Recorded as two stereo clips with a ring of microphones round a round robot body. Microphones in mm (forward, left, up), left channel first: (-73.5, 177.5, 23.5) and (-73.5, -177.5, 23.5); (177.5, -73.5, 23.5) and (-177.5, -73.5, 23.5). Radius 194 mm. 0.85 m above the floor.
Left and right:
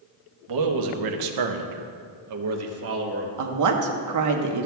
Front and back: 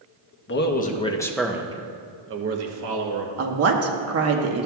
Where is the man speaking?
60° right, 1.0 m; by 3.3 s 150° right, 1.2 m.